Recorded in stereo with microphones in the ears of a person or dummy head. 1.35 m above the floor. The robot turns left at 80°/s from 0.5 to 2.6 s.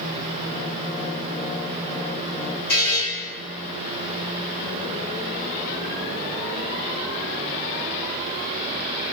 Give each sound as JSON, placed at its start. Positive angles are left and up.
{"t": 2.7, "sound": "a buzzer", "side_deg": 50, "distance_m": 1.4}